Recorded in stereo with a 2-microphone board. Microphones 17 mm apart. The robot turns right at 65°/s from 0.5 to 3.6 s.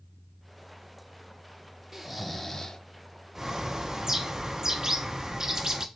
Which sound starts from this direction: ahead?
Snoring, at 1.9 s.